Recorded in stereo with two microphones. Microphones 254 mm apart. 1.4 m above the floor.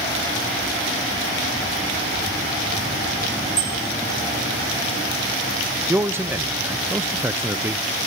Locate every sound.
3.6 s a bicycle bell: 10° left (ahead or behind), 5.5 m
5.9 s a man speaking: 10° right (ahead or behind), 0.5 m